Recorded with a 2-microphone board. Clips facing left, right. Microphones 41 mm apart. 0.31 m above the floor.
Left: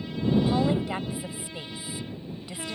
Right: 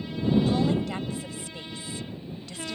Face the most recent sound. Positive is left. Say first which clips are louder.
# even
turn(degrees=15)  # may be behind; listen again after turning